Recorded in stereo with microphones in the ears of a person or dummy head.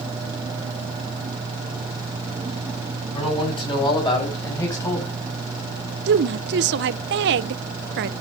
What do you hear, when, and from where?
3.1 s a man speaking: 30° left (ahead or behind), 6 m; by 5.2 s 15° left (ahead or behind), 5 m
6.1 s a woman speaking: 60° right (ahead or behind), 0.7 m